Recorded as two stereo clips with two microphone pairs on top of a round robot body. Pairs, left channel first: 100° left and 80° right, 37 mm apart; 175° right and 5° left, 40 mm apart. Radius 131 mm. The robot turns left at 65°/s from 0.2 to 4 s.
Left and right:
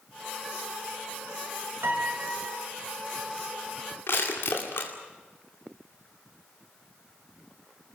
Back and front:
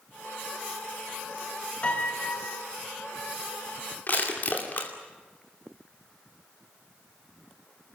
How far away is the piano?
About 2.5 m.